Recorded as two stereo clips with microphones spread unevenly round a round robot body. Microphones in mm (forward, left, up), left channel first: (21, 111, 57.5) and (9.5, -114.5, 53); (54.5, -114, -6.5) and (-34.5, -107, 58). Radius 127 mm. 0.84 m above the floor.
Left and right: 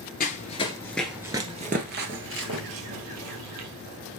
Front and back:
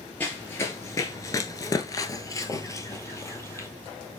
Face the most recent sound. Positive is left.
turn(degrees=-85)